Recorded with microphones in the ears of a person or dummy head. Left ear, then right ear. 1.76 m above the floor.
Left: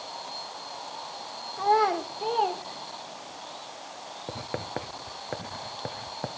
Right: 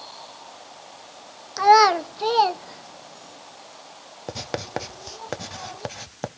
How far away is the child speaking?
About 0.7 m.